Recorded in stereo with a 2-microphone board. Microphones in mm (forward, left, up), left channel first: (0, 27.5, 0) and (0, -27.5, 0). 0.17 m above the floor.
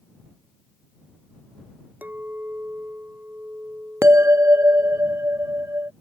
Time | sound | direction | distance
2.0 | a clink | 35° right (ahead or behind) | ?
4.0 | a bell | 55° right (ahead or behind) | ?